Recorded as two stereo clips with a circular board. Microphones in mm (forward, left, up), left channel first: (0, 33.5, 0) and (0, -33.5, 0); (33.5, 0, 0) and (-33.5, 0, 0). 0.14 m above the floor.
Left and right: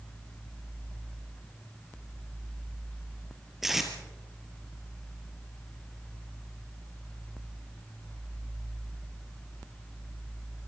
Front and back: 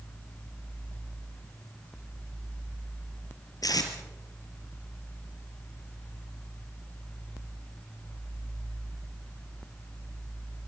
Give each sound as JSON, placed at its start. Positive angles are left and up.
{"t": 3.6, "sound": "tape being pulled", "azimuth_deg": -5, "distance_m": 3.0}